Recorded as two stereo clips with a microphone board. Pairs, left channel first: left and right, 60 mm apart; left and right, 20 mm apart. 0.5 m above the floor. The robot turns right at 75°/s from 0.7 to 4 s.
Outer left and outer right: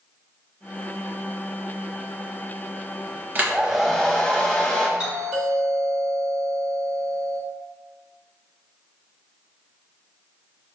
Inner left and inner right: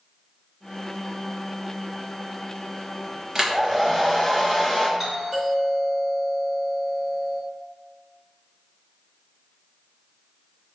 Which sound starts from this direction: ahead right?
A hair dryer, at 3.4 s.